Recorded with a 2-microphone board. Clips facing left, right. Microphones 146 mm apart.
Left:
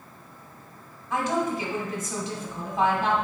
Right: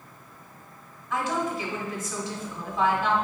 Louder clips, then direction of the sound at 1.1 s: Left 2 dB; 20° left (ahead or behind).